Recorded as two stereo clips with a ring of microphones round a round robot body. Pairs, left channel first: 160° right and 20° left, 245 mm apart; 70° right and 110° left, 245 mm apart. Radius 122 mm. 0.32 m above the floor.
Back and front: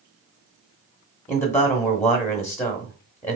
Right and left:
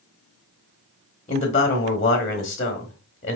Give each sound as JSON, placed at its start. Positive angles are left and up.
{"t": 1.3, "sound": "a man speaking", "azimuth_deg": -90, "distance_m": 0.9}